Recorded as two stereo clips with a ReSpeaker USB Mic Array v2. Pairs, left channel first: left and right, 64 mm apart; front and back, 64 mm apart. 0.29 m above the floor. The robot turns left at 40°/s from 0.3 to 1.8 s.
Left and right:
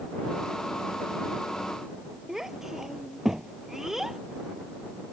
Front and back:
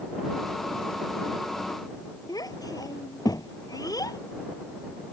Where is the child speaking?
5° right.